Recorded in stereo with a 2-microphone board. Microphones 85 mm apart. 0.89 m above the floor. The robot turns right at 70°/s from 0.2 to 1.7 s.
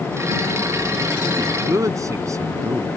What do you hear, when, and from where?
1.4 s a man speaking: 65° right (ahead or behind); by 2.9 s 40° right (ahead or behind)